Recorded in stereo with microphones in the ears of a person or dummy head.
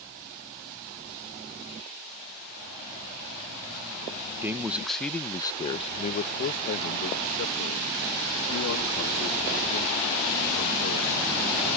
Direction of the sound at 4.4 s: 10° right (ahead or behind).